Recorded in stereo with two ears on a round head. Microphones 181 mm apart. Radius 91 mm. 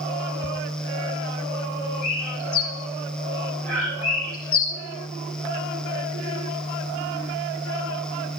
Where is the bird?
75° left (ahead or behind), 7 m.